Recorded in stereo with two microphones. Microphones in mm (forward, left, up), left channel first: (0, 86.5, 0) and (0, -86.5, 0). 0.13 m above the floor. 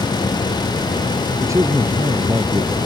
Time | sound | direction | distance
1.4 | a man speaking | 15° right (ahead or behind) | ?